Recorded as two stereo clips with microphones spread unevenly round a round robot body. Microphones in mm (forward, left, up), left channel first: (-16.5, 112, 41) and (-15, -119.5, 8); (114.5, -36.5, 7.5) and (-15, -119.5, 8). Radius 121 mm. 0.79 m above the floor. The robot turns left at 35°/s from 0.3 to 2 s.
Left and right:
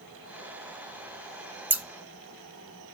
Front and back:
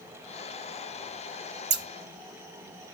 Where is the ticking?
I don't hear ticking.